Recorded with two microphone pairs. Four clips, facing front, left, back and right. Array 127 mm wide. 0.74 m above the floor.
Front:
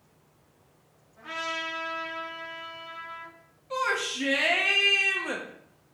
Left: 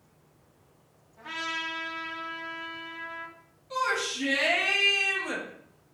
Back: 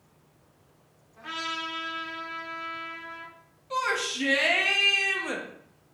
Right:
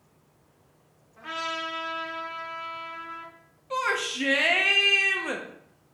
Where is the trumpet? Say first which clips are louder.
Right 3 dB, even; 135° right, 1.7 m.